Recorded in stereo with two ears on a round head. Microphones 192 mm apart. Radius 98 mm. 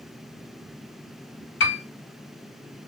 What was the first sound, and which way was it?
A piano, 60° left (ahead or behind).